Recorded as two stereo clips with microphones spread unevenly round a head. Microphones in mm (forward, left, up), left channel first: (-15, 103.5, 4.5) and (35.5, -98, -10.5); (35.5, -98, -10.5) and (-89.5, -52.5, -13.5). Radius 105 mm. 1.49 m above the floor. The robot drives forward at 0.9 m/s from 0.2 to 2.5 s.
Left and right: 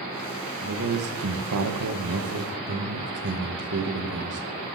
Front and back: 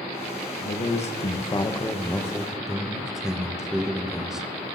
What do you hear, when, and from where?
0.6 s a man speaking: 45° right, 1.7 m; by 4.8 s 115° right, 1.3 m